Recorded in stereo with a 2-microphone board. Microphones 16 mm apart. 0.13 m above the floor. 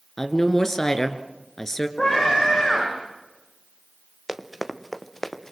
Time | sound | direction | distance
0.2 | a woman speaking | 25° left (ahead or behind) | 1.9 m
2.0 | a scream | 60° left (ahead or behind) | 8.5 m
4.3 | running footsteps | 15° right (ahead or behind) | 1.8 m